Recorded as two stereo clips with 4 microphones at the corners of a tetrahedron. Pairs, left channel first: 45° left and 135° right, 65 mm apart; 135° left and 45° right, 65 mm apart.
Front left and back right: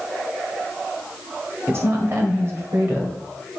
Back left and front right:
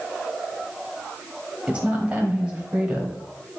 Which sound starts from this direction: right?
A woman speaking, at 1.7 s.